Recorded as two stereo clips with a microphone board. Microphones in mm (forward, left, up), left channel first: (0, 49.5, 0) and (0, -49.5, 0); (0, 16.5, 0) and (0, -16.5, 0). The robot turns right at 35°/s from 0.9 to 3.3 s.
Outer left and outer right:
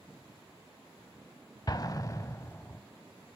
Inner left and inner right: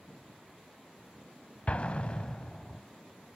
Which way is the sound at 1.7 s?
40° left (ahead or behind).